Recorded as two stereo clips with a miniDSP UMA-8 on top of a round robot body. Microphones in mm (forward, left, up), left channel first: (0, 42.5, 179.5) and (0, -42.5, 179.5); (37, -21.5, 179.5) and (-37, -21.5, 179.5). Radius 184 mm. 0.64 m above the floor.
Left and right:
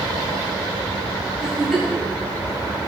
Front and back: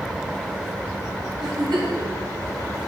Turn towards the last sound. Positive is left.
turn(degrees=175)